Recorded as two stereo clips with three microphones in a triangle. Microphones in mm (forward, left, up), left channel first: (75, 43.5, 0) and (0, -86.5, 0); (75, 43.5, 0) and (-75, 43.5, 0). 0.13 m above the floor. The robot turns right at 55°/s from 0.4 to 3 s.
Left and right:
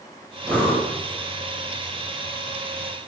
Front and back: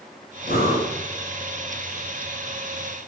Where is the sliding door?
No sliding door in this recording.